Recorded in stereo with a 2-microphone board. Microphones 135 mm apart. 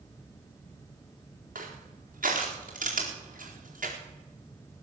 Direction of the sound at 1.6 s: 75° right (ahead or behind).